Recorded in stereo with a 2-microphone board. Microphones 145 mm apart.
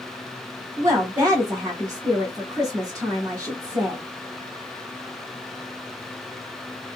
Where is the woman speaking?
25° right (ahead or behind), 1.2 m.